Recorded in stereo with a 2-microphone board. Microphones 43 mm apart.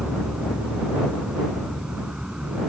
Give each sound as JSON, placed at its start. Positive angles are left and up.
{"t": 0.0, "sound": "an insect", "side_deg": -20}